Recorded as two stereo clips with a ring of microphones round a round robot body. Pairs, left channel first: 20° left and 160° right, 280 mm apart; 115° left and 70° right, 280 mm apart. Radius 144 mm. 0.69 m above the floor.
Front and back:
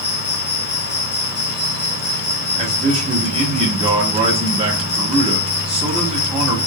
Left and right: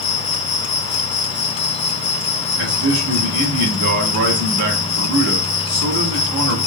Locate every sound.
0.0 s an insect: 70° left, 1.1 m
2.6 s a man speaking: 90° right, 1.7 m